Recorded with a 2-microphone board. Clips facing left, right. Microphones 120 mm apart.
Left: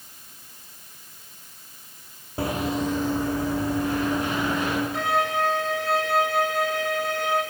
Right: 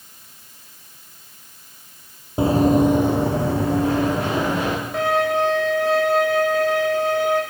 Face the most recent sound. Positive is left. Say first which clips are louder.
# right 9 dB
turn(degrees=-55)  # may be behind; listen again after turning